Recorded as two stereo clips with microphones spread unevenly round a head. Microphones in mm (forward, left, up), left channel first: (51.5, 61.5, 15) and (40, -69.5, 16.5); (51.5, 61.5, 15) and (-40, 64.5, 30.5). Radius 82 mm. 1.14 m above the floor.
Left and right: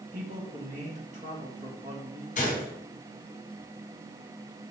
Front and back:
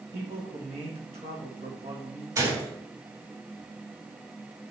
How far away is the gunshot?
About 2.5 m.